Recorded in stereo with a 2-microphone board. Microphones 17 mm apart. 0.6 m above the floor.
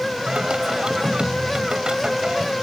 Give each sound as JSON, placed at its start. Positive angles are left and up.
{"t": 0.3, "sound": "singing", "side_deg": -70}